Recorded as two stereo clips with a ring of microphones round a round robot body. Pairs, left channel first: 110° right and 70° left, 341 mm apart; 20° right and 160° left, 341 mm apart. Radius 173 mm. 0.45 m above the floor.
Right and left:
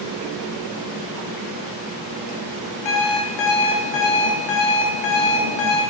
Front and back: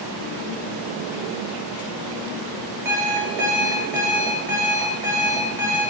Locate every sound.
2.9 s an alarm clock: 120° right, 0.8 m